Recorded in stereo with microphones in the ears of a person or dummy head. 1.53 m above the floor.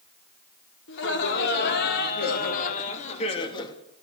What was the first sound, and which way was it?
Laughter, 75° left (ahead or behind).